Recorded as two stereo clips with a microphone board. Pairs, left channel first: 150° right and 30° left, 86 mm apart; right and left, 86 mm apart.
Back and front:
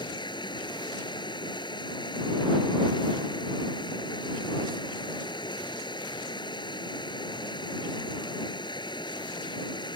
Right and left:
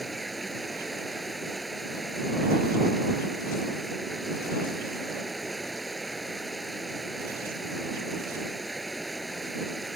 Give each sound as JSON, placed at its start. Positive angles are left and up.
{"t": 0.0, "sound": "running water", "azimuth_deg": 180}